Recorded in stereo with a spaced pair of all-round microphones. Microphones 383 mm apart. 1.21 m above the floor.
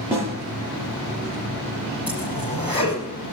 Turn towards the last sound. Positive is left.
turn(degrees=-60)  # may be behind; listen again after turning